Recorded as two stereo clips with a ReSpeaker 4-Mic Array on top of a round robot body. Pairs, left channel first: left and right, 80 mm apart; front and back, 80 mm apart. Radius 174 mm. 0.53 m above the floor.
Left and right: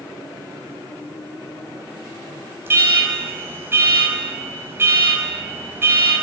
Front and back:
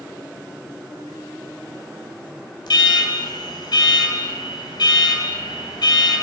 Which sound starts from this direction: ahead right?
An alarm, at 2.7 s.